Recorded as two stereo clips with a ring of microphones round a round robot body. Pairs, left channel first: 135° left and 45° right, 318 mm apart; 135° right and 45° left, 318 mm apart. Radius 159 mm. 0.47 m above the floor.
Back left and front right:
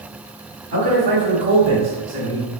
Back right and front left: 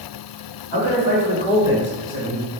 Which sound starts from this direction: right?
A man speaking, at 0.7 s.